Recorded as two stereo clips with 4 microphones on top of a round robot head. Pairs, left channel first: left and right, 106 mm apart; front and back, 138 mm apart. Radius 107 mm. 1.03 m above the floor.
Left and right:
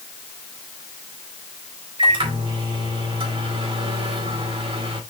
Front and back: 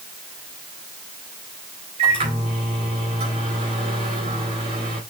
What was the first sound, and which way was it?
A microwave, 125° right.